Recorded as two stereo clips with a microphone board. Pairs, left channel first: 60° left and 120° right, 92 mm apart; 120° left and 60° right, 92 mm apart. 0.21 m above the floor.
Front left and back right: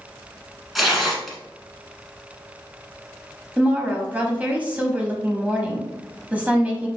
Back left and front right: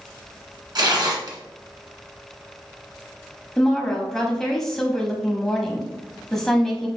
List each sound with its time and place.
0.8 s tearing paper: 30° right, 1.2 m
3.6 s a woman speaking: 165° right, 1.1 m